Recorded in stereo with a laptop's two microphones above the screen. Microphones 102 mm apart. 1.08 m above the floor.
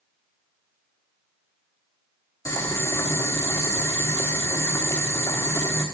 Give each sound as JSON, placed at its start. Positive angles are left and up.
{"t": 2.5, "sound": "boiling", "side_deg": 35, "distance_m": 2.0}